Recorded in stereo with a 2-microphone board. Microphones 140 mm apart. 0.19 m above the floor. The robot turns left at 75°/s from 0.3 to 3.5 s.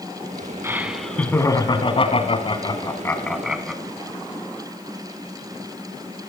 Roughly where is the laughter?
Behind right.